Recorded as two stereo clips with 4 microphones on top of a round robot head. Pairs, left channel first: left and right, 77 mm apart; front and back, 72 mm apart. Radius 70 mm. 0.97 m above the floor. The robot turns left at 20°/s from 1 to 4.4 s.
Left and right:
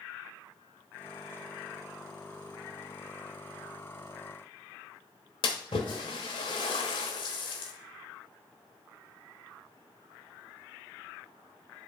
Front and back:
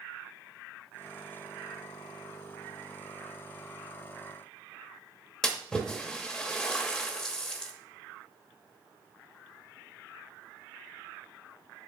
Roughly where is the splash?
Left.